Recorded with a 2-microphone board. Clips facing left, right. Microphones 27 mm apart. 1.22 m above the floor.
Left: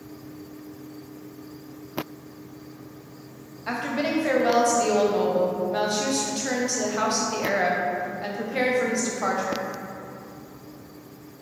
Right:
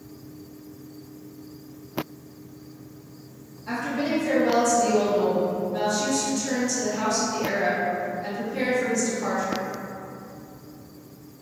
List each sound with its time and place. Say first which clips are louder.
3.7 s a woman speaking: even; 50° left (ahead or behind), 0.8 m